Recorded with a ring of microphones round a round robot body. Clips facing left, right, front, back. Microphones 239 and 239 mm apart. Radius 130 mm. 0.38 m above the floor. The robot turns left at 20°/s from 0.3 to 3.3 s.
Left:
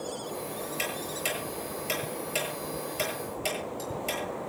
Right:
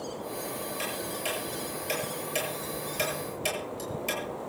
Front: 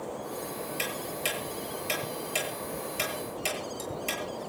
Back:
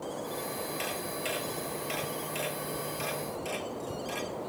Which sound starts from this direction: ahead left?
Ticking, at 0.8 s.